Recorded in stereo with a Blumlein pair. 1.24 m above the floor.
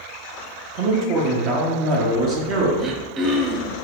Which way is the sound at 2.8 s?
30° right.